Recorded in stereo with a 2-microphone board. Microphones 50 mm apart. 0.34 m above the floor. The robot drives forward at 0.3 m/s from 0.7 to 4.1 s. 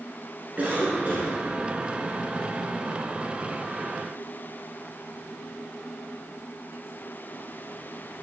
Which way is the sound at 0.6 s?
30° right (ahead or behind).